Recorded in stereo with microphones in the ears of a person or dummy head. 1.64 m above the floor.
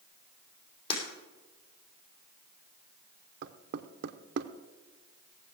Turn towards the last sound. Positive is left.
turn(degrees=-55)  # may be behind; listen again after turning